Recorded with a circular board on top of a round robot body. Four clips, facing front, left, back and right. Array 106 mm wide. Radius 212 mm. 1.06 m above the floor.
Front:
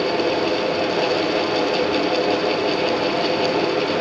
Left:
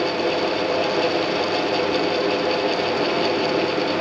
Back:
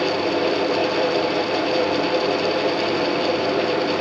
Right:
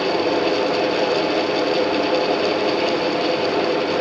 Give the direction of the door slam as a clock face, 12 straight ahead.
I don't hear a door slam.